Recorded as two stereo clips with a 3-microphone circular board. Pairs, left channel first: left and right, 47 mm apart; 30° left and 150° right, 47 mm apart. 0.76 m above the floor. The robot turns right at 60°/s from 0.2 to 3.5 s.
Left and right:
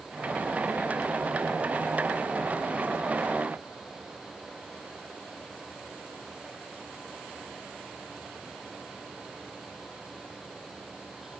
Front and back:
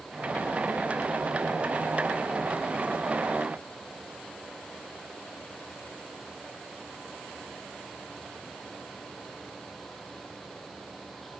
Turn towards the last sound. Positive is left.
No sound to turn to.